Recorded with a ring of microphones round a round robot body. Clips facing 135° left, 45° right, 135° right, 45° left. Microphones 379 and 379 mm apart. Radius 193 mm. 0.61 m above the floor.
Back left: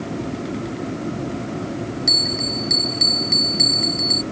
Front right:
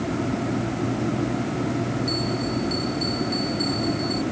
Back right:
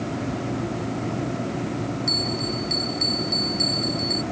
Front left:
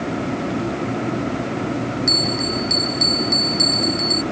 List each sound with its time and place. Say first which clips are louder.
2.1 s a bell: front right 2 dB, front left 5 dB; 115° left